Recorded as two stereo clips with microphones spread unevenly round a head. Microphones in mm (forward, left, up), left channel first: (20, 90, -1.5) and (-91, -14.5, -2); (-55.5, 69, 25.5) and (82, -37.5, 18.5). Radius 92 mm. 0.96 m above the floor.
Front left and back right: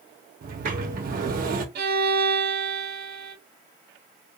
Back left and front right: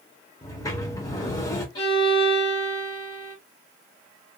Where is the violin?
150° right, 0.7 m.